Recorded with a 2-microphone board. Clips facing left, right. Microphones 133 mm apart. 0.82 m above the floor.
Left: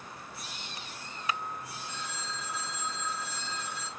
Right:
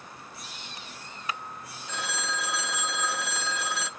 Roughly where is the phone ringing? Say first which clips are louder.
Right 10 dB; right.